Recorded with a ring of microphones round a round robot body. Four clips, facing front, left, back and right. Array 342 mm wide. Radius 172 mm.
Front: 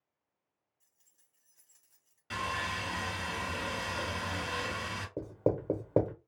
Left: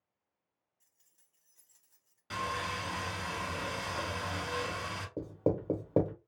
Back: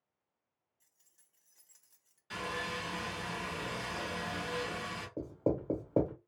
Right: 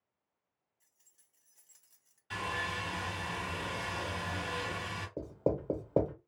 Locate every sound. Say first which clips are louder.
0.8 s keys jangling: right 1 dB, back 1 dB; 145° left, 1.1 m; by 2.2 s 115° right, 1.0 m
2.3 s sawing: left 1 dB, front 3 dB; 65° left, 2 m
5.2 s writing: left 1 dB, front 2 dB; 20° left, 1.0 m